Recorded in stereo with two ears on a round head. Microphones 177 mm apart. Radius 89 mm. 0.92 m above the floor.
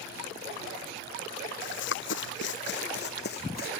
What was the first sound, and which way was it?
Running footsteps, 65° left (ahead or behind).